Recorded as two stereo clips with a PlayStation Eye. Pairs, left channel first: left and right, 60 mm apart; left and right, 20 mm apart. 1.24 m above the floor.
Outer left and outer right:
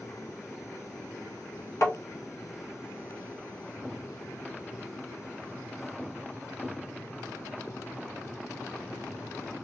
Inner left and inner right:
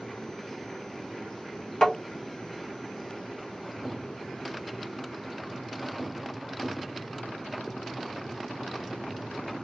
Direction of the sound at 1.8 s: 50° left (ahead or behind).